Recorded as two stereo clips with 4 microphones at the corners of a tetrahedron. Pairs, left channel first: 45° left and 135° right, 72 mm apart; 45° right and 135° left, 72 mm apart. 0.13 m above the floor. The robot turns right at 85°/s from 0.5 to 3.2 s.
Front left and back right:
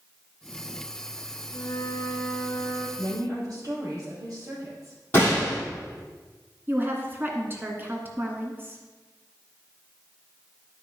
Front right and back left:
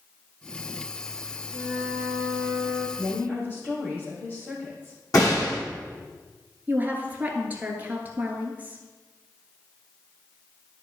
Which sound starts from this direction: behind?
A woman speaking, at 6.7 s.